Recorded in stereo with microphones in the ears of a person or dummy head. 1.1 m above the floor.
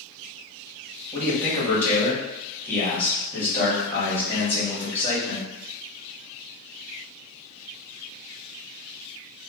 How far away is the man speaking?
About 1.5 m.